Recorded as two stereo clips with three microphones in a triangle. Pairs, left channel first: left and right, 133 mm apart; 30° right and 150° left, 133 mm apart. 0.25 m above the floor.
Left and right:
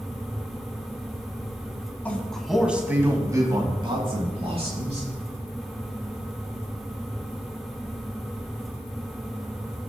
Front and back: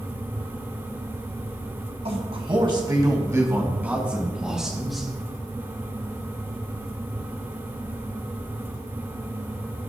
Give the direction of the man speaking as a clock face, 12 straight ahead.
7 o'clock.